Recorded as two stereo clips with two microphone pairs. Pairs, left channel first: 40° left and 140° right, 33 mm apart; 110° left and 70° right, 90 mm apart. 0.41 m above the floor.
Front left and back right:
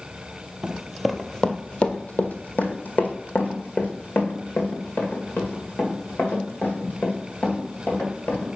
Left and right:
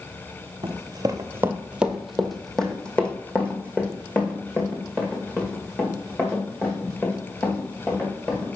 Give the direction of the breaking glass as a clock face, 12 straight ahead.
I don't hear breaking glass.